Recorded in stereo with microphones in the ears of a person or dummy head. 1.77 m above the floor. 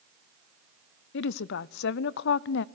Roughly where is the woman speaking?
Left.